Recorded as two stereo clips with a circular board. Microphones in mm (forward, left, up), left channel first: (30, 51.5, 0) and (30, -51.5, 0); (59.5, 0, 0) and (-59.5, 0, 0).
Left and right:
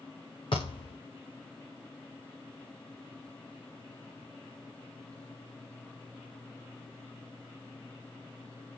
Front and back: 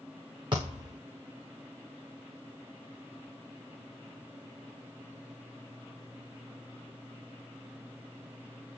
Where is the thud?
130° left, 7 m.